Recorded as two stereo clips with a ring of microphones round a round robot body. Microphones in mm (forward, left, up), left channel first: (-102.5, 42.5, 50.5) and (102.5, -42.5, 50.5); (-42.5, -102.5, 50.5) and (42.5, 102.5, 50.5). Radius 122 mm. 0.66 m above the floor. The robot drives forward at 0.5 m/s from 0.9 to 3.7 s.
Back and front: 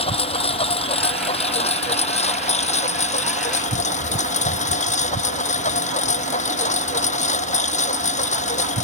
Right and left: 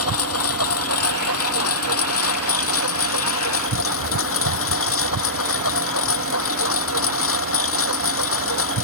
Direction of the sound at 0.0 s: 135° right.